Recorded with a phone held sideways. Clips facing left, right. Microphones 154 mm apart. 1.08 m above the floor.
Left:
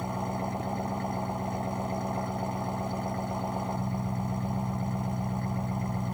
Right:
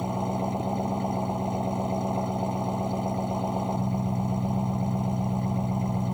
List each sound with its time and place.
0.0 s an engine running: 20° right (ahead or behind)